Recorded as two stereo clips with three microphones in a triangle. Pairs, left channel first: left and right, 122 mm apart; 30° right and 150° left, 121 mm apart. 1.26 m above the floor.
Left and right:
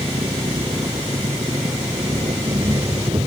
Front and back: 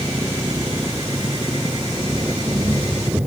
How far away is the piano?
No piano in this recording.